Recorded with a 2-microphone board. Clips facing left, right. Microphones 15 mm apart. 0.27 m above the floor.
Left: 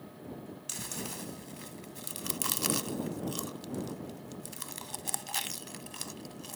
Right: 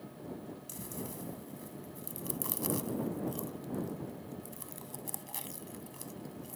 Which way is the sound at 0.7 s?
60° left (ahead or behind).